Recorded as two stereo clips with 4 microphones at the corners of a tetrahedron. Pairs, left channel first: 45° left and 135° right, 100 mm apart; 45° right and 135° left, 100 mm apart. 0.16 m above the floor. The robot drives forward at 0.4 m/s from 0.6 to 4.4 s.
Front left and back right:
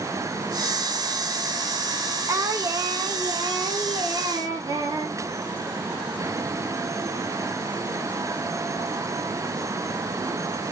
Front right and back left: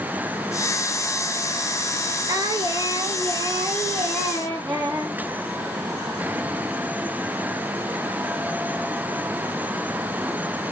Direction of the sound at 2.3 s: 175° left.